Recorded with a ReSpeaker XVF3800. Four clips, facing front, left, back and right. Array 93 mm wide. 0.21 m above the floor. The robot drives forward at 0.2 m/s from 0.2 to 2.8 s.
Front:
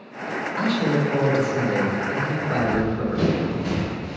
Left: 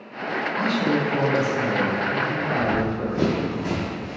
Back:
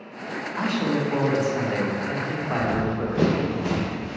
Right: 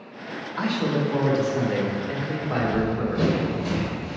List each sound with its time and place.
0.6 s a man speaking: 175° right, 1.4 m
2.6 s running footsteps: 160° left, 1.0 m; by 4.2 s 145° left, 2 m